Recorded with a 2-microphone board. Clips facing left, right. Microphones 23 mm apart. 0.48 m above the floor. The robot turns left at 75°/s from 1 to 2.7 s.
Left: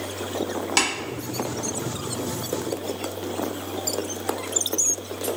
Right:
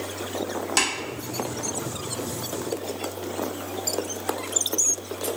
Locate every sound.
0.8 s tapping: 20° left (ahead or behind), 1.0 m